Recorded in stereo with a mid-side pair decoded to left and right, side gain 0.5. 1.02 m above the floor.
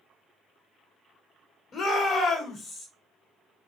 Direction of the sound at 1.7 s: 45° left.